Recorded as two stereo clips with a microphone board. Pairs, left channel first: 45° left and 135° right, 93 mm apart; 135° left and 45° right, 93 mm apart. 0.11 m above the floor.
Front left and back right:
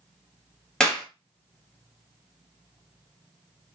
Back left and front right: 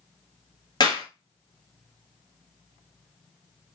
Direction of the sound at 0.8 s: 125° left.